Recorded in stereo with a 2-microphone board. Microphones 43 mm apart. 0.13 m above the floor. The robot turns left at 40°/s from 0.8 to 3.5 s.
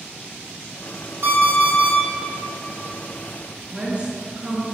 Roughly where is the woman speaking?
Right.